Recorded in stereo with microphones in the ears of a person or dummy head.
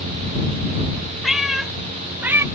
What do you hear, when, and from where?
1.2 s a cat meowing: centre (ahead or behind); by 2.5 s 10° right (ahead or behind)